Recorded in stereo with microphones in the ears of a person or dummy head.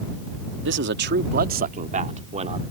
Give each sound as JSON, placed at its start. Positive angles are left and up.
{"t": 0.7, "sound": "a man speaking", "side_deg": -60}